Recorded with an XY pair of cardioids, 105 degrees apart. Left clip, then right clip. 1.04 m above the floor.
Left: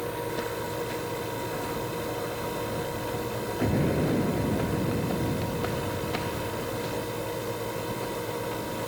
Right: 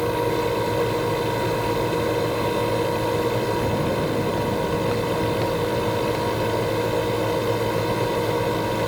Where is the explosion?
20° left.